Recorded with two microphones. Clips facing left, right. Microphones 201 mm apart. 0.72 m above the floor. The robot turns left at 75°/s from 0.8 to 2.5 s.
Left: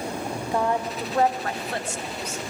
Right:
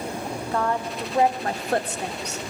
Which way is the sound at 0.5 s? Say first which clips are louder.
Left 1 dB; 15° left.